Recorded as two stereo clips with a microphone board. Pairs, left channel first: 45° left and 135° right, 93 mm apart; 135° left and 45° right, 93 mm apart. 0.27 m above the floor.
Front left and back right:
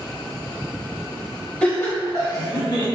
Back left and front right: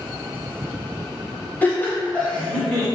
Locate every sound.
1.6 s laughter: 110° left, 1.0 m; by 2.9 s 55° left, 1.8 m